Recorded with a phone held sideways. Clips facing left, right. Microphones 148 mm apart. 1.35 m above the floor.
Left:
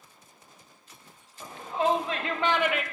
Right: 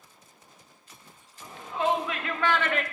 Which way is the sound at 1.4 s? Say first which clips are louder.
Left 1 dB; 45° left (ahead or behind).